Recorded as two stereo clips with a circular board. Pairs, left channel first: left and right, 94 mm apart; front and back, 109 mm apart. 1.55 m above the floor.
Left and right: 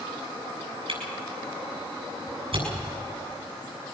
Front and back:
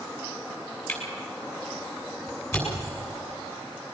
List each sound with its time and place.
0.9 s a camera shutter: 65° right, 7.5 m